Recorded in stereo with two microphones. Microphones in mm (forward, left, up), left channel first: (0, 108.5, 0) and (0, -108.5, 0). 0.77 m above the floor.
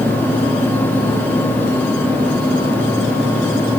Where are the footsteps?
No footsteps in this recording.